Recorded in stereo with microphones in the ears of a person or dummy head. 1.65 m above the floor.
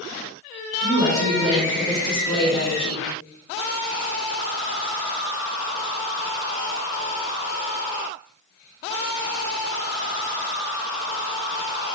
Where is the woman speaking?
45° right (ahead or behind), 1.1 m; by 3.1 s 30° left (ahead or behind), 1.5 m.